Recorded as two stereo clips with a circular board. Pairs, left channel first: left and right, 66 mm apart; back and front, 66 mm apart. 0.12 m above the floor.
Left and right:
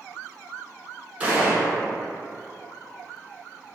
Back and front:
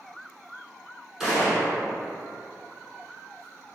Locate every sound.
1.2 s a gunshot: 70° right, 0.9 m